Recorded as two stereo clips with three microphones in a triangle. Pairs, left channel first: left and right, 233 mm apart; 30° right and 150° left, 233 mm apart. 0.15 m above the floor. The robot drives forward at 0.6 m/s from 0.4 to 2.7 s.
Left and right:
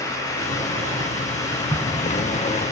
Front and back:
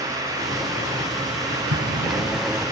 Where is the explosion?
165° left, 4 m.